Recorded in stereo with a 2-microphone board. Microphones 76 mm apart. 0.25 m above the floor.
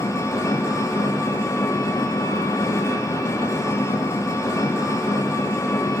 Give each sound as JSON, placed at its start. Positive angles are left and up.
{"t": 0.0, "sound": "an engine running", "side_deg": 50, "distance_m": 5.0}